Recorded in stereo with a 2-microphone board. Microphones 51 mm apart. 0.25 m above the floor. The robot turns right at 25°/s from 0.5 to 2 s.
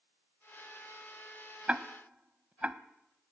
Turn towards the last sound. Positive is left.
turn(degrees=-30)  # may be behind; listen again after turning